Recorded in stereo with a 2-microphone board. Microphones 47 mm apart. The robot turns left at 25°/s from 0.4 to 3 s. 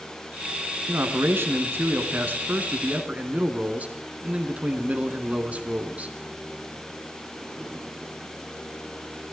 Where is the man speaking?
90° right, 2 m; by 6.1 s 140° right, 2 m.